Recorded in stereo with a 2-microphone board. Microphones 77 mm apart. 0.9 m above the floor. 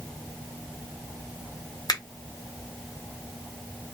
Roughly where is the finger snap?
Left.